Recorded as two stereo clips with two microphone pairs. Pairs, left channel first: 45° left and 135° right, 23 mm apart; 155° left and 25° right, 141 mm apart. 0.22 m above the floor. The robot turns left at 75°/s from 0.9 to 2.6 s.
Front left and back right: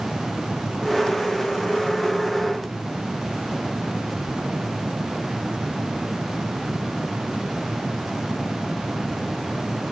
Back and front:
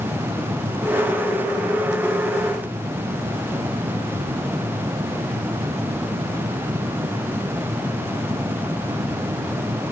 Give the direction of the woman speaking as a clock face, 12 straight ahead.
I don't hear a woman speaking.